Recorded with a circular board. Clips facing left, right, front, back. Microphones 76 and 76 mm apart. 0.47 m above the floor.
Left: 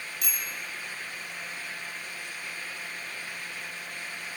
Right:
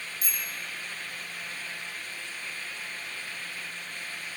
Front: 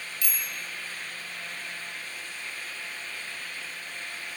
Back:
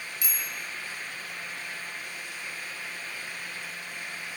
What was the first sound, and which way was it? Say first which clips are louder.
A bicycle bell: even, front 1 dB; 110° left.